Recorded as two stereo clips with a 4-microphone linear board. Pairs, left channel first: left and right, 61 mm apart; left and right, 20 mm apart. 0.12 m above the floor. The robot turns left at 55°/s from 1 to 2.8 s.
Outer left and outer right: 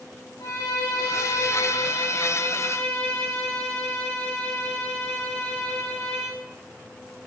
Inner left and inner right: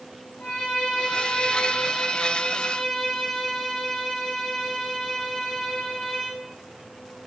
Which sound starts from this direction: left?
A violin, at 0.4 s.